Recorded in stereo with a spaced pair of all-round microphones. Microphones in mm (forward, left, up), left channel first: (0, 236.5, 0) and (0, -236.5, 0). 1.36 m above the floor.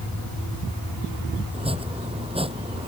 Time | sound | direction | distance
1.5 | chopping | 10° right (ahead or behind) | ?